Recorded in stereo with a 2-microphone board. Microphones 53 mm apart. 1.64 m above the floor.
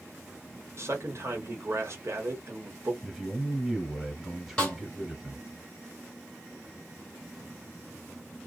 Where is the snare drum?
15° left (ahead or behind), 1.6 m.